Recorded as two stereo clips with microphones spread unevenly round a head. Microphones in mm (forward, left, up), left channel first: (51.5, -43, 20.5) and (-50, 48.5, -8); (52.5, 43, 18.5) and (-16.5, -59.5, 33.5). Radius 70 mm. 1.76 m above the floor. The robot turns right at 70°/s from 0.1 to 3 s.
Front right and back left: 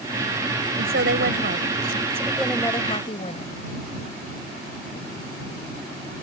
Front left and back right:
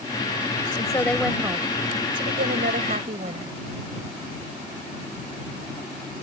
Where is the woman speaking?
115° left; by 3.5 s 90° right.